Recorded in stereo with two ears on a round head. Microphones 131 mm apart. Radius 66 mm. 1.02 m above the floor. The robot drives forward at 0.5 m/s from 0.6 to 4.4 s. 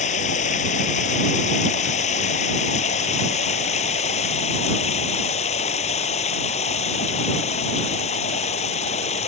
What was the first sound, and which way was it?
Running water, 55° left (ahead or behind).